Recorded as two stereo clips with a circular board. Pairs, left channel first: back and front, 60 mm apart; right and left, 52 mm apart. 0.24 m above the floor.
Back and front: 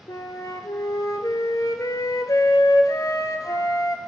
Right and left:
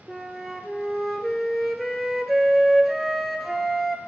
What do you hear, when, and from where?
0.1 s a flute: straight behind, 0.7 m